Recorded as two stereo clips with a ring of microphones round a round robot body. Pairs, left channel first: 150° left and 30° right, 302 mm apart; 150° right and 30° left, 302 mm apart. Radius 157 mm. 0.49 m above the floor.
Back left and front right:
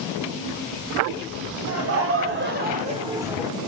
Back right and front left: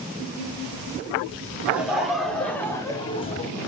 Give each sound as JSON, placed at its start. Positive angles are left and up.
{"t": 1.7, "sound": "laughter", "azimuth_deg": -55, "distance_m": 1.4}